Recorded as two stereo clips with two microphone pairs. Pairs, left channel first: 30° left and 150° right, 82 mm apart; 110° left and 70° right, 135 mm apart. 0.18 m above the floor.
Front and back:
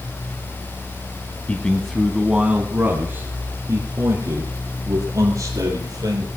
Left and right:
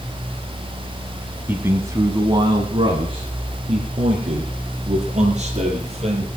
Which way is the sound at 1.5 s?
15° right.